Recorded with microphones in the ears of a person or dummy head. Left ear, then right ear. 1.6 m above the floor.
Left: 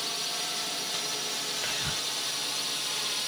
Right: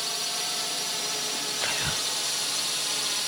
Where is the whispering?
20° right (ahead or behind).